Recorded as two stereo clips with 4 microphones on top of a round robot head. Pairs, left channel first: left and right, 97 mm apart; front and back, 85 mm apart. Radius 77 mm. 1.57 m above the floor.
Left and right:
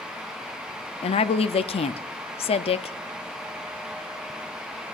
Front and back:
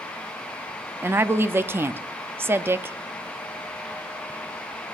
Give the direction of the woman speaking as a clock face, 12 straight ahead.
8 o'clock.